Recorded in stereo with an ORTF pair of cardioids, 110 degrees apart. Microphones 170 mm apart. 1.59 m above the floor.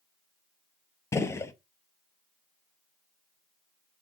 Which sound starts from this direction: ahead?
A gunshot, at 1.1 s.